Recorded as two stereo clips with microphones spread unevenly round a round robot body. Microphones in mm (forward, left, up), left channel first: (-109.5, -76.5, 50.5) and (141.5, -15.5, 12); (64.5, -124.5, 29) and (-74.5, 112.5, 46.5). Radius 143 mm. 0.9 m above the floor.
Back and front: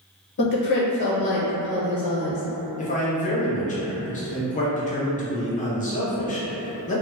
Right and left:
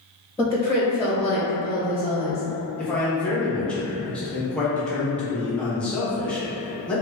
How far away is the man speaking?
About 0.7 m.